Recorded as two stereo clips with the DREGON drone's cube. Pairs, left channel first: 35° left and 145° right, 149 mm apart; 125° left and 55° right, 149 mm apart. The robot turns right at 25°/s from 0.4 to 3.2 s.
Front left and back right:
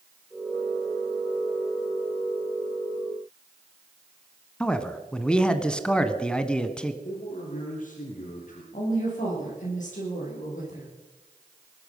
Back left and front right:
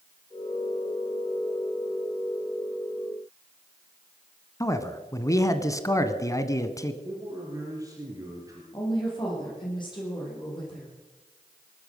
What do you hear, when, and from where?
4.6 s a man speaking: 105° left, 1.1 m
7.0 s a man speaking: 10° left, 4.5 m
8.7 s a woman speaking: 65° left, 7.5 m